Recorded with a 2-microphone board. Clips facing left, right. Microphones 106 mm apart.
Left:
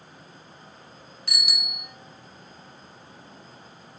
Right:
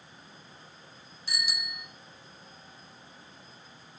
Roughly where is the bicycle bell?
Left.